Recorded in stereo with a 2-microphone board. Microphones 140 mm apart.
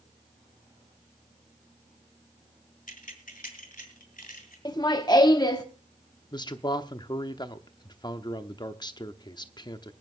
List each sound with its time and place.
2.9 s keys jangling: 70° left (ahead or behind), 1.6 m; by 4.5 s 85° left, 2.5 m
4.7 s laughter: 30° left (ahead or behind), 0.9 m
6.3 s a man speaking: 30° left (ahead or behind), 0.8 m